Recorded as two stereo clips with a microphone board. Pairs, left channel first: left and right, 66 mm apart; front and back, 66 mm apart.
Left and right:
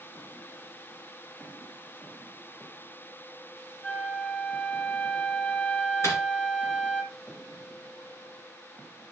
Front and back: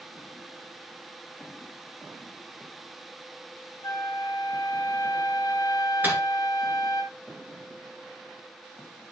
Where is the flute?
20° left, 1.0 m.